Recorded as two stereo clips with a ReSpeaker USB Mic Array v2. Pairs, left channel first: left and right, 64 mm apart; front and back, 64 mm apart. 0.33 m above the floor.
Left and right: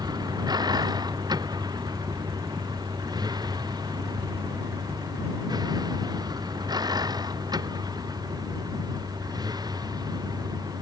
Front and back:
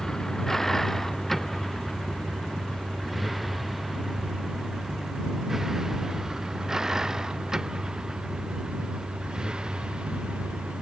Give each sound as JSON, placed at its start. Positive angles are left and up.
{"t": 0.0, "sound": "a vehicle", "azimuth_deg": -85}